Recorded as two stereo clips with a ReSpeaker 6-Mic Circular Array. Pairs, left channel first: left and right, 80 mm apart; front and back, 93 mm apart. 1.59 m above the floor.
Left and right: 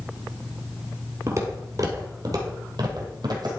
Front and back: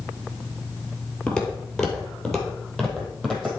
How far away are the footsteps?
About 2.0 m.